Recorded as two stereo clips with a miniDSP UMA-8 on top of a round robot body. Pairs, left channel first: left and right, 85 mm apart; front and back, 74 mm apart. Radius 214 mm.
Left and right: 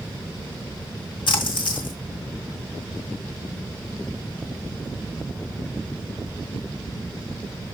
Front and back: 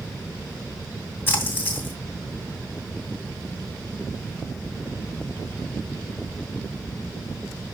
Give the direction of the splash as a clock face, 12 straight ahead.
10 o'clock.